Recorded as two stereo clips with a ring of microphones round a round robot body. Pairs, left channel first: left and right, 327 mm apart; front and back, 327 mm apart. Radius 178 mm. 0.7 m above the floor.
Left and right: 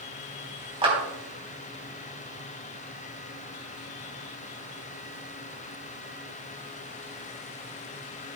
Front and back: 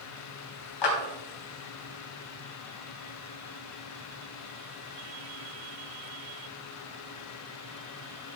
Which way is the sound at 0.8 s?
15° right.